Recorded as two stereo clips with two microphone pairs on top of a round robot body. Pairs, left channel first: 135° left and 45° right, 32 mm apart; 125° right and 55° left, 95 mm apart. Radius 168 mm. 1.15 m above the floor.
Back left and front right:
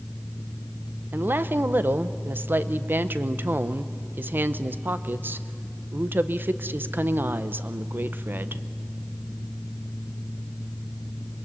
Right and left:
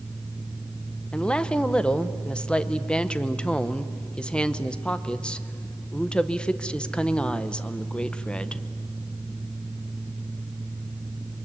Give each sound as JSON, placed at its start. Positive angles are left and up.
{"t": 1.1, "sound": "a woman speaking", "azimuth_deg": -40, "distance_m": 0.8}